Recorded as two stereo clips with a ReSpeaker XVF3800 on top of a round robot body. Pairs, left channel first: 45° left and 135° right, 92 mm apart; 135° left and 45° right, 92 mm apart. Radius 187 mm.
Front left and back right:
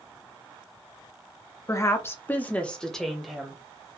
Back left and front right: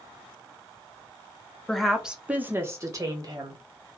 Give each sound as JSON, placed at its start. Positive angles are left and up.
{"t": 1.7, "sound": "a woman speaking", "azimuth_deg": 55, "distance_m": 1.0}